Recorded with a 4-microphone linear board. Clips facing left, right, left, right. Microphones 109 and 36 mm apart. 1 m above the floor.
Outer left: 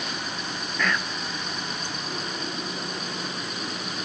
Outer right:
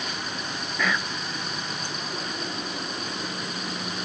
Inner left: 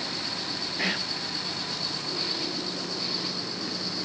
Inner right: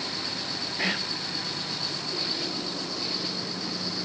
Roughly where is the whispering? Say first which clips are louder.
Even, inner right 1 dB; centre.